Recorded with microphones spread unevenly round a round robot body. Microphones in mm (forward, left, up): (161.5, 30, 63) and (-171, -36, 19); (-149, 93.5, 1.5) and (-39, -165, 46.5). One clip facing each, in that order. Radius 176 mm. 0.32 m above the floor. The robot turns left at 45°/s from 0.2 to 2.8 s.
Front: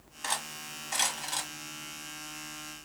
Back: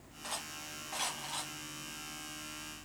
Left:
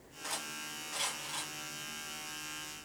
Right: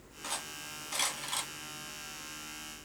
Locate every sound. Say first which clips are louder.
0.2 s cutlery clinking: front 5 dB, even; 15° left, 1.6 m; by 1.5 s 45° right, 1.6 m